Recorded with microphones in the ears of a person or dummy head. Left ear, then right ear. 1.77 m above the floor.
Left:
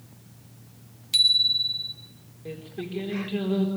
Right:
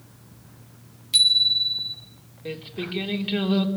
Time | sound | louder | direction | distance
1.1 | a bicycle bell | right 2 dB | 5° left (ahead or behind) | 3 m
2.5 | singing | right 4 dB | 40° right (ahead or behind) | 4 m